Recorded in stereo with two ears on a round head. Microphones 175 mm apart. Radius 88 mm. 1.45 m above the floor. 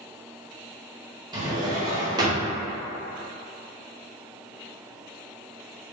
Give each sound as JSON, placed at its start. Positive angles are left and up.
{"t": 1.3, "sound": "a drawer", "side_deg": -20, "distance_m": 0.9}